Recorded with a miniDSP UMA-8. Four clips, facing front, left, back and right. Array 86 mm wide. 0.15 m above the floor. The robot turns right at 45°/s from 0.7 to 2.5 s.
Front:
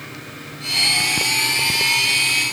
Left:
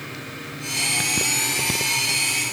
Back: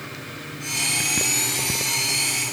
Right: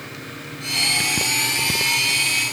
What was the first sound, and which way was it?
Only background noise.